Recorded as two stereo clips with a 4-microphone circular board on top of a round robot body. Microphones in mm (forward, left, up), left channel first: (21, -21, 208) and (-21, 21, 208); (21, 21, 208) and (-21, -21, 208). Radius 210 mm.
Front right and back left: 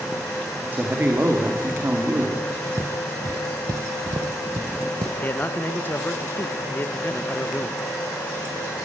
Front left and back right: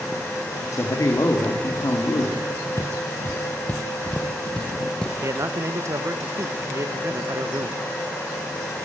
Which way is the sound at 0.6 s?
75° left.